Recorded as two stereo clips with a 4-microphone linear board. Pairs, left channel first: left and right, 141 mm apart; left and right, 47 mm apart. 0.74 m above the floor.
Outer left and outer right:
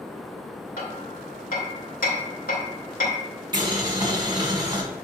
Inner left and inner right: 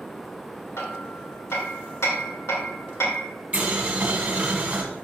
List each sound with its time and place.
0.8 s hammering: 75° left (ahead or behind), 1.6 m
3.5 s boiling: 30° right (ahead or behind), 1.7 m